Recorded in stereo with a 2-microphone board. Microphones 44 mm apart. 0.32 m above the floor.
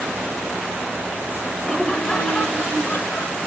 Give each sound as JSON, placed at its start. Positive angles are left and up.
{"t": 1.6, "sound": "laughter", "side_deg": 10, "distance_m": 1.3}